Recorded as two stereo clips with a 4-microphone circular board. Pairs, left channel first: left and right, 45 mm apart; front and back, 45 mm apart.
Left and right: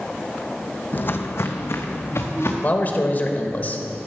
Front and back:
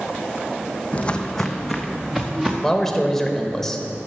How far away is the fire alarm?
I don't hear a fire alarm.